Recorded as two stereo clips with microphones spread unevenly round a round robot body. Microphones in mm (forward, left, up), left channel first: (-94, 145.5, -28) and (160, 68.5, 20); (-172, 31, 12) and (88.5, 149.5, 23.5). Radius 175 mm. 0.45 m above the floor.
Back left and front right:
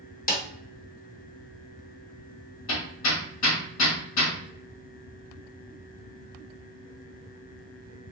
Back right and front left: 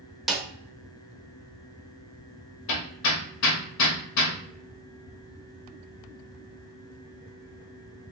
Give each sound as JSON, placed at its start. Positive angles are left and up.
{"t": 0.3, "sound": "a snare drum", "azimuth_deg": 115, "distance_m": 1.1}
{"t": 2.7, "sound": "hammering", "azimuth_deg": -170, "distance_m": 1.0}